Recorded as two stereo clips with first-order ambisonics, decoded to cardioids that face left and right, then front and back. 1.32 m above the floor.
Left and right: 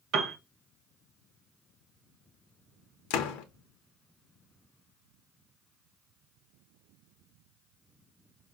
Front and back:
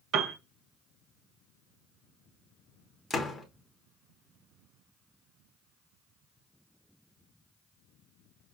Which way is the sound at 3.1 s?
80° left.